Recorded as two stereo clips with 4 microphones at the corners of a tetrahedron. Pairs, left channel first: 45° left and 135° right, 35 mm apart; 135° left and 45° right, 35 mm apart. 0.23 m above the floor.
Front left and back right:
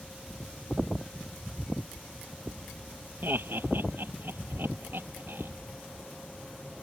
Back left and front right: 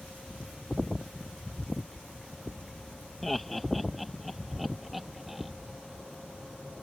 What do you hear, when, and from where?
3.2 s laughter: 140° right; by 5.5 s 130° right